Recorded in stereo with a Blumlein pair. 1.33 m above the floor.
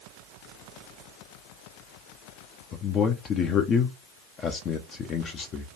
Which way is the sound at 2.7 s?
30° left.